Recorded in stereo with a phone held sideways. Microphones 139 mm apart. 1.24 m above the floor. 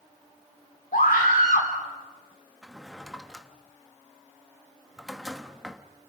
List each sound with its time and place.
0.9 s a scream: 80° left, 4.5 m
2.6 s a drawer: centre (ahead or behind), 1.2 m